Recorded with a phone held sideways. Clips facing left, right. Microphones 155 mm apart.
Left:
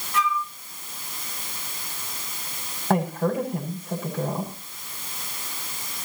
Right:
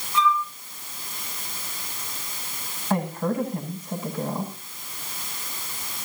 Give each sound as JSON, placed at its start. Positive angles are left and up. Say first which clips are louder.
{"t": 0.1, "sound": "a flute", "louder": "right 3 dB", "side_deg": 70, "distance_m": 9.5}
{"t": 2.9, "sound": "a woman speaking", "louder": "left 2 dB", "side_deg": 55, "distance_m": 6.5}